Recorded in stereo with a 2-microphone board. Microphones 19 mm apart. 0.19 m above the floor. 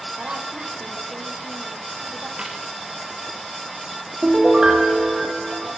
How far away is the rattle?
I don't hear a rattle.